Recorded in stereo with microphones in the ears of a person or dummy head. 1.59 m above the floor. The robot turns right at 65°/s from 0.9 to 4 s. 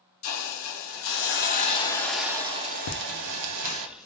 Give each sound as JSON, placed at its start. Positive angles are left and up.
{"t": 0.2, "sound": "a hiss", "azimuth_deg": 100, "distance_m": 0.6}
{"t": 2.9, "sound": "laughter", "side_deg": 75, "distance_m": 0.5}